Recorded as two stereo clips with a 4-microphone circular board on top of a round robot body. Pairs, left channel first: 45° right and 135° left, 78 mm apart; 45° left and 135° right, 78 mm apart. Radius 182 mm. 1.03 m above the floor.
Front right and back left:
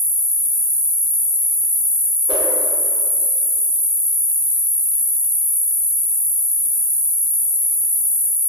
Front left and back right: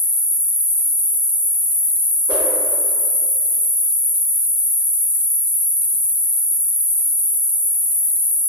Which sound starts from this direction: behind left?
An insect, at 0.0 s.